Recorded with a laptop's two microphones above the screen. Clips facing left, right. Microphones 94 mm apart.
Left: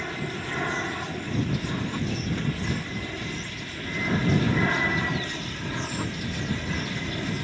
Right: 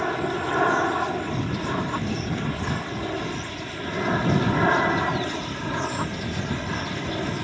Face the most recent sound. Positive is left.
turn(degrees=-35)  # may be behind; listen again after turning